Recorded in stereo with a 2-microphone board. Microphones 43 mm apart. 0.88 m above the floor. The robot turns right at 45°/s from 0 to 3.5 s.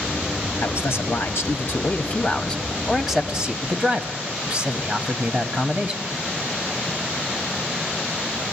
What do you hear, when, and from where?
0.6 s a man speaking: 85° left, 1.6 m; by 6.0 s 145° right, 1.6 m